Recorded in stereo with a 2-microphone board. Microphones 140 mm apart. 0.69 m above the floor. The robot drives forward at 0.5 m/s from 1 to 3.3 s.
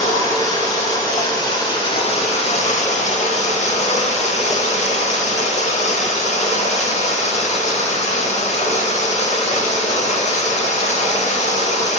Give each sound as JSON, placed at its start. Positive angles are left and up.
{"t": 0.0, "sound": "running water", "side_deg": 25, "distance_m": 1.1}